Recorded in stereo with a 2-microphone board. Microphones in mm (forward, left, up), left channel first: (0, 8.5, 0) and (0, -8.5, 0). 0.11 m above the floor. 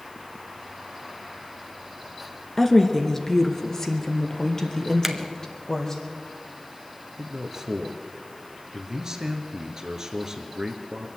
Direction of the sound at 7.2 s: 30° right (ahead or behind).